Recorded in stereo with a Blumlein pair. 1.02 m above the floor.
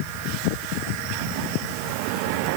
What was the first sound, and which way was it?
Only background noise.